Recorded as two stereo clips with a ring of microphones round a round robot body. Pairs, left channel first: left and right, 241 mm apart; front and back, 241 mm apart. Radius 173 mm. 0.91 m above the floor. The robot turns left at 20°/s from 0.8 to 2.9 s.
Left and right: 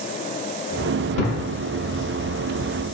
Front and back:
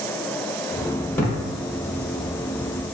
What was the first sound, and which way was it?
A thud, 80° left.